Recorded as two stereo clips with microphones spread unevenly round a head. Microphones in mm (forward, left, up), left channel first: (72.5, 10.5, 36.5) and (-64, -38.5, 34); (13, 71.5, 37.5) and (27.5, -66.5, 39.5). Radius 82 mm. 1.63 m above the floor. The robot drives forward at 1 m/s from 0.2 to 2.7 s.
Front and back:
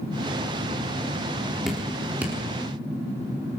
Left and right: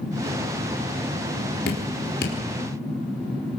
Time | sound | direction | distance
1.7 | dripping | 110° left | 4 m